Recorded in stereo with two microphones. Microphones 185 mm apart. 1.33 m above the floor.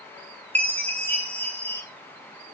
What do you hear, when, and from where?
0.6 s a chime: 10° left (ahead or behind), 2 m